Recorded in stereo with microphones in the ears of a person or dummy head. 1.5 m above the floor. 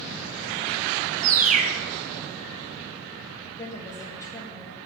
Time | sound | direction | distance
1.2 | a bird | 35° right (ahead or behind) | 0.8 m
3.6 | a woman speaking | 20° left (ahead or behind) | 1.4 m